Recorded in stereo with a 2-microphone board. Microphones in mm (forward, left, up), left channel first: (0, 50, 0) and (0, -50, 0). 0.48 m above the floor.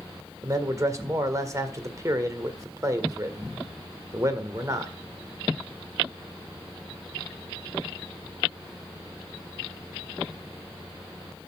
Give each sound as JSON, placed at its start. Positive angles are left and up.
{"t": 0.4, "sound": "a man speaking", "side_deg": -30, "distance_m": 1.6}